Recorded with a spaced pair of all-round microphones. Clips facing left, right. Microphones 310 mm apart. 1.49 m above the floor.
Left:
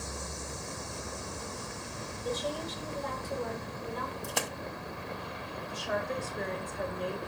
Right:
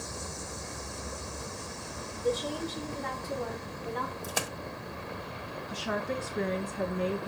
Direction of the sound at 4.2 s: Centre (ahead or behind).